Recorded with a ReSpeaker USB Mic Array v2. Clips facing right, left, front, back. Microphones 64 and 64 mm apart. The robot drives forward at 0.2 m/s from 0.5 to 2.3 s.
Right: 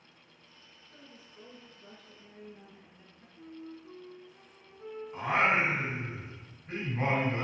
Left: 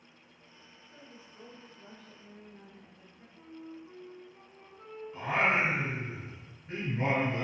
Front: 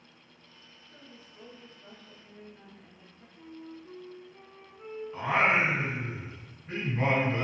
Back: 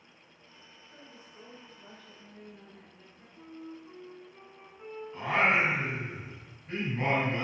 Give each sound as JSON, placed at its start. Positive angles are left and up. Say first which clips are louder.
{"t": 0.9, "sound": "a woman speaking", "louder": "left 1 dB, even", "azimuth_deg": 110, "distance_m": 0.8}
{"t": 3.4, "sound": "a flute", "louder": "right 1 dB, even", "azimuth_deg": 115, "distance_m": 1.0}
{"t": 5.1, "sound": "singing", "louder": "right 1 dB, front 1 dB", "azimuth_deg": -70, "distance_m": 1.2}